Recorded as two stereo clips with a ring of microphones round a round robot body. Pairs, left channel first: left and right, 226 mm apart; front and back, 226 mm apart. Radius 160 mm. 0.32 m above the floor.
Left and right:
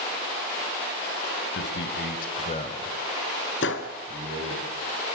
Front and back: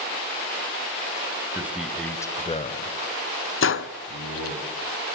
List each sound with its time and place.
1.5 s a man speaking: 100° left, 2 m; by 4.6 s 25° right, 3.5 m
3.6 s a gunshot: 35° left, 1.0 m